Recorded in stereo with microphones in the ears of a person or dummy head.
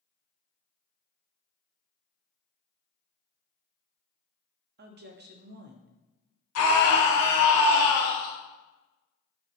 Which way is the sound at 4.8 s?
50° right (ahead or behind).